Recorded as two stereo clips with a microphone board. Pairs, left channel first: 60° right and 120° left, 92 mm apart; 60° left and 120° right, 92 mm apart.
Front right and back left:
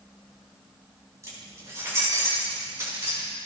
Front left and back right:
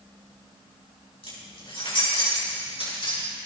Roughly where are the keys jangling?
Ahead left.